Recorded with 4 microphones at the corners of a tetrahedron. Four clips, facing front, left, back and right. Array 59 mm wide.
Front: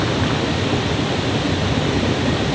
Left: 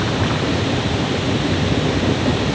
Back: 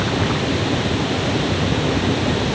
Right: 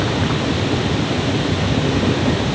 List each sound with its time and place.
Only background noise.